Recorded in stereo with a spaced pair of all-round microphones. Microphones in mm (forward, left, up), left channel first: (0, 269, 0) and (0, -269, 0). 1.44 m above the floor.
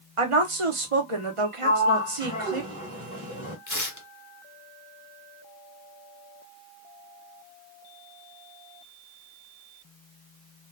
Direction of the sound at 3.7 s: 35° left (ahead or behind).